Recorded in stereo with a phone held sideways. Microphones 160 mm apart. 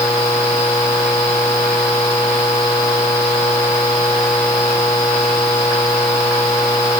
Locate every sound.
Only background noise.